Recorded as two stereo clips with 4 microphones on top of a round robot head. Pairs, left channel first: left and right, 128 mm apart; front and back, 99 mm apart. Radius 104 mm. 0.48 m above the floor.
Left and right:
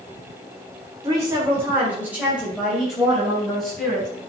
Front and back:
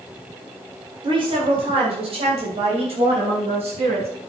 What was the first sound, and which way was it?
A woman speaking, 150° right.